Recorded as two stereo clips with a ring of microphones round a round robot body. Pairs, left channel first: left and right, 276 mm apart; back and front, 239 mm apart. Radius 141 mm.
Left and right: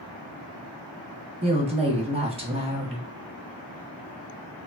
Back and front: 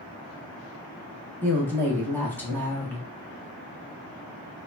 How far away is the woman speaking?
About 0.8 m.